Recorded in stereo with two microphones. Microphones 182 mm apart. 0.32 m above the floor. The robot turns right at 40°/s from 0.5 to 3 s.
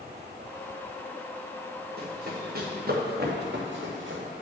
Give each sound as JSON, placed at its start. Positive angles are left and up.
{"t": 2.0, "sound": "running footsteps", "side_deg": -55, "distance_m": 2.5}